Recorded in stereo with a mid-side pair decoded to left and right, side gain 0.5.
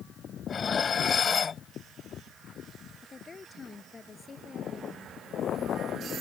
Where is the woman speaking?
30° left.